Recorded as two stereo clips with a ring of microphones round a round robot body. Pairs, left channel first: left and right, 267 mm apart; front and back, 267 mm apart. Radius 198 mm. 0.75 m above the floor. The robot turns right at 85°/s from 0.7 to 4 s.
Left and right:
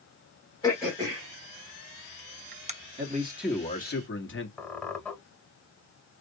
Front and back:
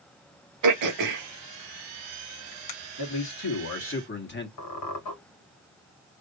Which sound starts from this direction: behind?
Throat clearing, at 0.6 s.